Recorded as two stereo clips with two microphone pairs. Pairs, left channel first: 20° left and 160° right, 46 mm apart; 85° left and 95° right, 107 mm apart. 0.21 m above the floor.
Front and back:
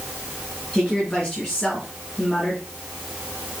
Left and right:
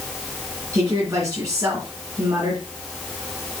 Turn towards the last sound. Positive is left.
turn(degrees=-50)